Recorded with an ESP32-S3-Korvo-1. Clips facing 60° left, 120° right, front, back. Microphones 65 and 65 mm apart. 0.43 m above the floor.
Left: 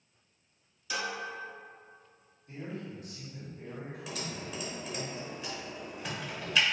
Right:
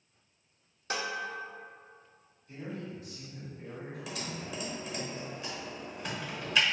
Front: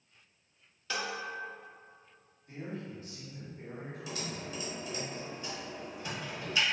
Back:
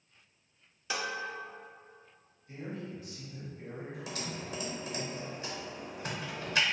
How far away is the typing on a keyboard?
About 0.8 m.